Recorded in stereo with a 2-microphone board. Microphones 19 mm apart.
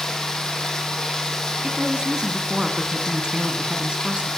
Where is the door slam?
No door slam in this recording.